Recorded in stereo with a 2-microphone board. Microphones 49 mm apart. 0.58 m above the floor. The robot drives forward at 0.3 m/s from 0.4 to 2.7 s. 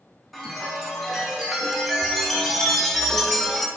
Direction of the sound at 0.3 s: Centre (ahead or behind).